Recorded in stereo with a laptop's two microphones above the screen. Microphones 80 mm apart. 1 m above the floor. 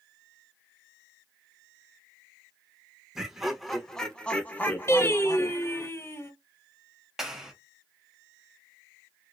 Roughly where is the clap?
Centre.